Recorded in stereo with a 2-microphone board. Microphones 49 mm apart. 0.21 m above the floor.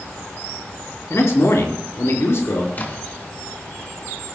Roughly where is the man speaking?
Left.